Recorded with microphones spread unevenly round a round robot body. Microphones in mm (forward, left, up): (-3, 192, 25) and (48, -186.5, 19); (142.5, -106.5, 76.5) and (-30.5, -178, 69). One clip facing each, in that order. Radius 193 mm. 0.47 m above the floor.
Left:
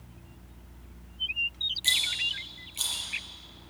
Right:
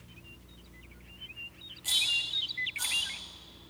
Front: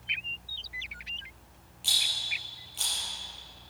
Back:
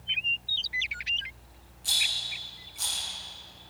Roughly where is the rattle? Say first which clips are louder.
Left 4 dB, even; ahead left.